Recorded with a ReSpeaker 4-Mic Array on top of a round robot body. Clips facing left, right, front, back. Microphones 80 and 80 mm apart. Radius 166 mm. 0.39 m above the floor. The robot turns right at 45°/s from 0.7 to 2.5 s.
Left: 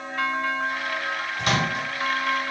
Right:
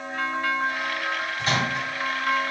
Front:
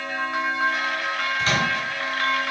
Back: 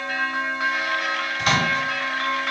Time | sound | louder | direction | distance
1.4 | a microwave | left 2 dB, back 3 dB | 105° left | 1.9 m